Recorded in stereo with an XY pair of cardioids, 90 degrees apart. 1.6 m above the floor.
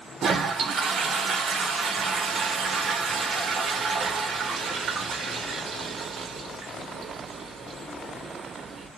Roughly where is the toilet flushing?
Ahead right.